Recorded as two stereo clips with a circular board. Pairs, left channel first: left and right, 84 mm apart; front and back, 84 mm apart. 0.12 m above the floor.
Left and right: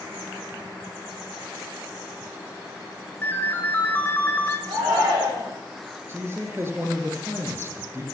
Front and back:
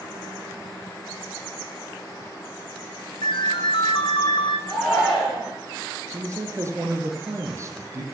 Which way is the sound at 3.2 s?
20° left.